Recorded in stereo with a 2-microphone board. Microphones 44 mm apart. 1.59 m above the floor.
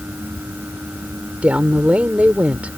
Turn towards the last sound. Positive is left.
turn(degrees=-35)  # may be behind; listen again after turning